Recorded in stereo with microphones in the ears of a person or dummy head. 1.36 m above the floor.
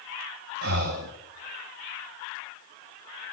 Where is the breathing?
55° right (ahead or behind), 2 m.